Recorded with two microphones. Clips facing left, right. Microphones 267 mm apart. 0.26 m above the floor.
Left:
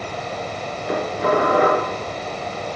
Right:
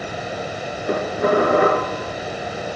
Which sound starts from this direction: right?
Dishes clattering, at 0.9 s.